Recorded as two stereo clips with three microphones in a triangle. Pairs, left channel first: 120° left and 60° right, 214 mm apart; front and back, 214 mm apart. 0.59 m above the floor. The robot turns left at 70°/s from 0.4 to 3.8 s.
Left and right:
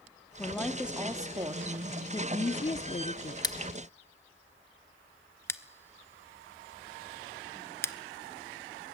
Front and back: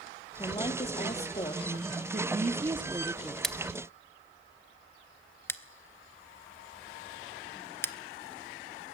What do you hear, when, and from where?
0.4 s a woman speaking: 55° left, 1.2 m; by 2.0 s 60° right, 1.2 m
2.1 s a woman speaking: straight behind, 1.3 m; by 3.3 s 95° left, 1.3 m
3.4 s scissors: 85° left, 0.9 m; by 7.9 s 60° left, 0.9 m